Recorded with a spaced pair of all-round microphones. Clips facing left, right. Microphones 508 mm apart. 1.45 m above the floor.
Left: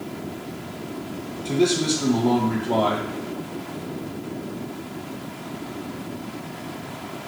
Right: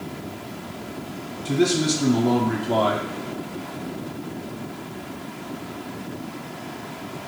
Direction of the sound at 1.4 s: 35° right (ahead or behind).